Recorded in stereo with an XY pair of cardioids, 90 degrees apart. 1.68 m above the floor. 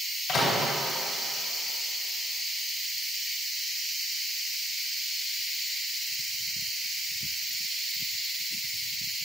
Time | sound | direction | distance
0.3 | a microwave | 65° left | 2.0 m